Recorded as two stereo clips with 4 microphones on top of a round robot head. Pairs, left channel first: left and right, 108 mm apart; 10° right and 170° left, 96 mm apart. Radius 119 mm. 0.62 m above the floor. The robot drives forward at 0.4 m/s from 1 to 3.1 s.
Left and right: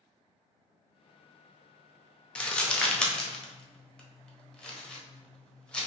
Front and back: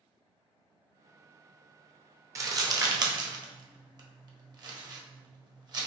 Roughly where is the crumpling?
Behind.